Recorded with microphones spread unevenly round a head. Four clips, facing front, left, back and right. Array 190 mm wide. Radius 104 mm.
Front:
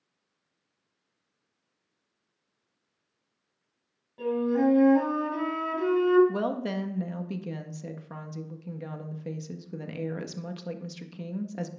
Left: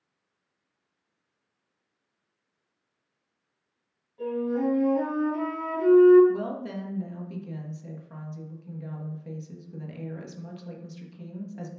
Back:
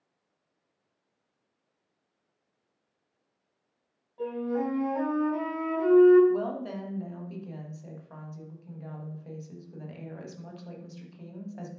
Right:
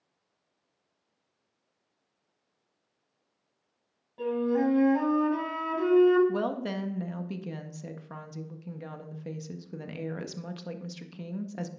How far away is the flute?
About 5 m.